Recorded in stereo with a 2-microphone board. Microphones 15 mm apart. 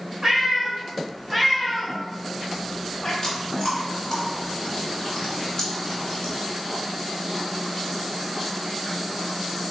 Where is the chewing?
35° left (ahead or behind), 1.5 m.